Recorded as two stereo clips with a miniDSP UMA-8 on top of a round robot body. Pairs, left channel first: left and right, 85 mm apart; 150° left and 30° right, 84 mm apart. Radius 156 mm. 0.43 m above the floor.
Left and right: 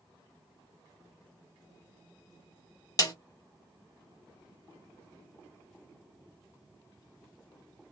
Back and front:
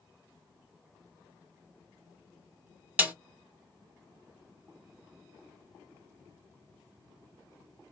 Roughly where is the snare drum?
Ahead left.